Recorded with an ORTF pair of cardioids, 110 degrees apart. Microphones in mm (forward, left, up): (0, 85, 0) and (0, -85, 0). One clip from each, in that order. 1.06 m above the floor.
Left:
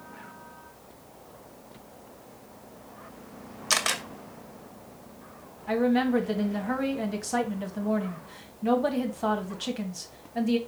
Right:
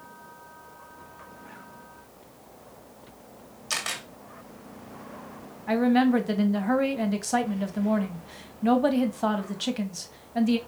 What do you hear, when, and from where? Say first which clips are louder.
3.7 s a camera shutter: left 4 dB; 35° left, 1.7 m
5.7 s a woman speaking: right 2 dB; 20° right, 1.6 m